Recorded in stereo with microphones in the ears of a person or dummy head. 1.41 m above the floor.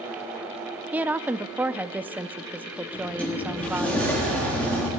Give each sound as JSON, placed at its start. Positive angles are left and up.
{"t": 0.9, "sound": "a woman speaking", "side_deg": -10, "distance_m": 0.5}
{"t": 2.9, "sound": "a sliding door", "side_deg": 5, "distance_m": 3.5}